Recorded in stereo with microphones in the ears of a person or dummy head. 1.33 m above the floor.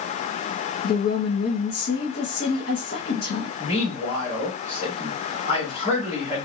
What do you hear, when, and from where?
0.8 s a woman speaking: 55° left (ahead or behind), 1.8 m
3.6 s a man speaking: 35° left (ahead or behind), 4 m